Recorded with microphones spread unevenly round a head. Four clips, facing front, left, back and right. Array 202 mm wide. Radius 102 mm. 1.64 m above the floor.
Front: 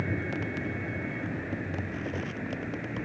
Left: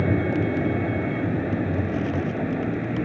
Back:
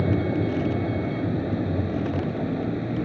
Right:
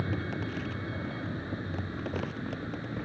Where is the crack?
I don't hear a crack.